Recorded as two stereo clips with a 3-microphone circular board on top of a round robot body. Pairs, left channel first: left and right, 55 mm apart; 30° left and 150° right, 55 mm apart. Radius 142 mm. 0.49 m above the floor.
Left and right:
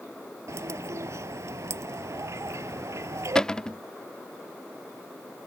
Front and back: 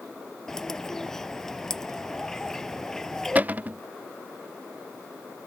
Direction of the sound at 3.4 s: 160° left.